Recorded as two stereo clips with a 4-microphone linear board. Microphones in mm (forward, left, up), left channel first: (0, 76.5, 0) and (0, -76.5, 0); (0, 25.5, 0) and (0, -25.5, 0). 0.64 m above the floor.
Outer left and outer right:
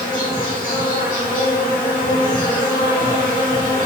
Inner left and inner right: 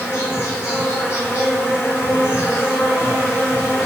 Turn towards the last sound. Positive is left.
turn(degrees=65)  # may be behind; listen again after turning